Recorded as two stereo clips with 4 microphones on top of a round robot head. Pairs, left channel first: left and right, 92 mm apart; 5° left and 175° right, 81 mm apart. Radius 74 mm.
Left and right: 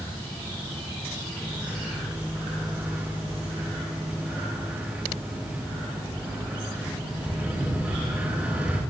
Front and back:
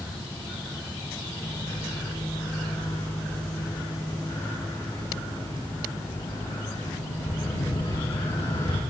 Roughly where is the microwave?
Ahead.